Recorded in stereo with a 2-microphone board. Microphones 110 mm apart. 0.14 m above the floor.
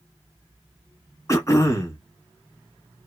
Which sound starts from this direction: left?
Throat clearing, at 1.3 s.